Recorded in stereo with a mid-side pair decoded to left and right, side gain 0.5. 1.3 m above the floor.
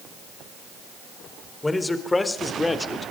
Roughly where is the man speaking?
Ahead.